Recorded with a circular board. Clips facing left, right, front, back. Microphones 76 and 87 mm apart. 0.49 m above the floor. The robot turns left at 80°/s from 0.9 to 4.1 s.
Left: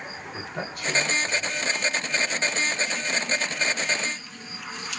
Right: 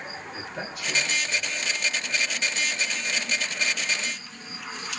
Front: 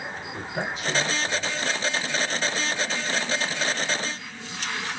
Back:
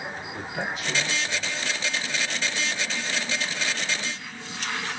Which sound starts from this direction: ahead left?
A man speaking, at 0.3 s.